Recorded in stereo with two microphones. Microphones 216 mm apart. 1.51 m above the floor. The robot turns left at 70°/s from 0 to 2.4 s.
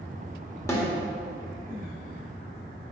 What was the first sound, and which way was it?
A snare drum, 15° left (ahead or behind).